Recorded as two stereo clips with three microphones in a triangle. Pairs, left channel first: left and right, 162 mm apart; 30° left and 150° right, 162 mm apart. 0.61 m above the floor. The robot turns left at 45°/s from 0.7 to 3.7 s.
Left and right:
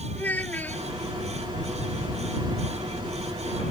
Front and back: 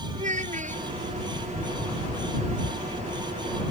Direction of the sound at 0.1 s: 170° left.